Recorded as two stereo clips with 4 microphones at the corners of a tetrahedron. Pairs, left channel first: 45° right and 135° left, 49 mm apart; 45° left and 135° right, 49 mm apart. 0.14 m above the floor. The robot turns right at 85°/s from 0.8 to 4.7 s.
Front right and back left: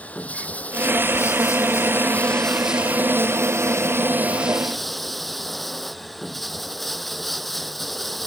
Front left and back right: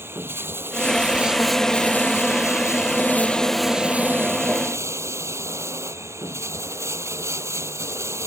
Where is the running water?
100° right; by 8.3 s 130° right.